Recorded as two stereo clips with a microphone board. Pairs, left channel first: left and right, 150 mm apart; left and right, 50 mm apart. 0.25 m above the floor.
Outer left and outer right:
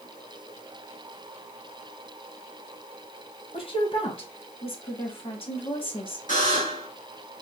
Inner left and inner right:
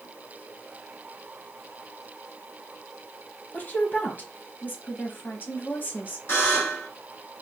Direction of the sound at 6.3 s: 60° left (ahead or behind).